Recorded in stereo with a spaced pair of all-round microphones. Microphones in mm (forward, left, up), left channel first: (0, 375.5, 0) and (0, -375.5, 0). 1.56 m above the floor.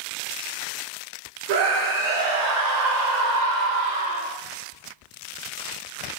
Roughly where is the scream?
Right.